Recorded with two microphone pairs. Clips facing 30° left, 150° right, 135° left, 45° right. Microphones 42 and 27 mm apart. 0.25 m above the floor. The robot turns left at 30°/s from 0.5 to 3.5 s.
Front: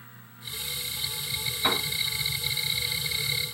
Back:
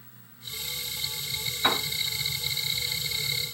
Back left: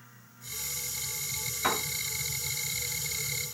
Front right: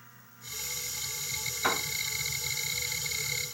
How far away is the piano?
About 1.7 m.